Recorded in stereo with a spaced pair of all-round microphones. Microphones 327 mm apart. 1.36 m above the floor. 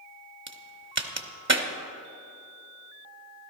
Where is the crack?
35° right (ahead or behind), 1.0 m.